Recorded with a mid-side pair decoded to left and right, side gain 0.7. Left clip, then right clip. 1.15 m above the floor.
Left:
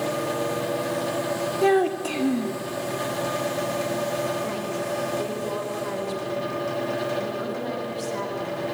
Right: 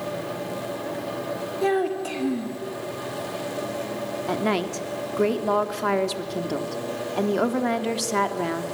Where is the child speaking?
15° left, 1.8 m.